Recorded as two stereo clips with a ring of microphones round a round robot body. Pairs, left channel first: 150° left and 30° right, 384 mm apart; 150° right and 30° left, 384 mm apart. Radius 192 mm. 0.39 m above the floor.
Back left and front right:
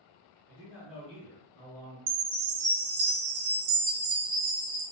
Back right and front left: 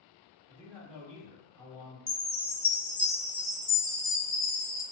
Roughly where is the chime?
Ahead right.